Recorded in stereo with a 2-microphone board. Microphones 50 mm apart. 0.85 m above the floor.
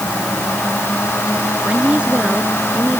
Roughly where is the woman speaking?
Right.